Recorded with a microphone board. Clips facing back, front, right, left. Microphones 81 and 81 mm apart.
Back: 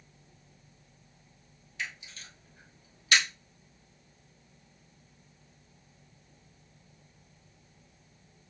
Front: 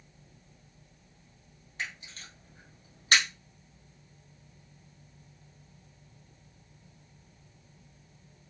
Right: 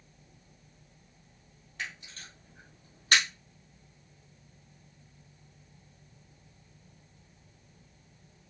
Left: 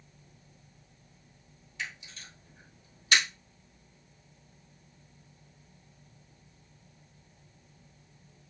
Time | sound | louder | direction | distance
1.8 | a camera shutter | even, even | 50° right | 2 m